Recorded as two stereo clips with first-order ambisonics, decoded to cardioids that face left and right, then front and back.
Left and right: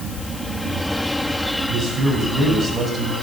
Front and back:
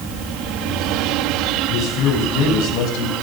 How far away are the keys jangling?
No keys jangling in this recording.